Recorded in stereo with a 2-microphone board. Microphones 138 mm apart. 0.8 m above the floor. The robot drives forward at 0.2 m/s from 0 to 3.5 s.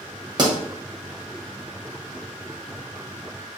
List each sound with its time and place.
0.4 s a pop: 30° right (ahead or behind), 0.9 m